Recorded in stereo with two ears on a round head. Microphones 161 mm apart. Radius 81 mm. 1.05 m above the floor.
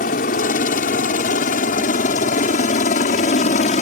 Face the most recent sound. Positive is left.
turn(degrees=40)  # may be behind; listen again after turning